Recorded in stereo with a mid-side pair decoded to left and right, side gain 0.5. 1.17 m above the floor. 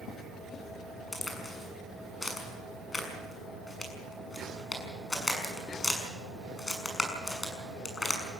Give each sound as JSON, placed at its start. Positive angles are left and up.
{"t": 1.1, "sound": "a crack", "azimuth_deg": 25, "distance_m": 6.5}